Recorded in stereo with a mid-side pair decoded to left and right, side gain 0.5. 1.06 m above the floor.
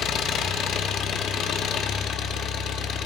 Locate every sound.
0.0 s an engine running: 60° left, 1.2 m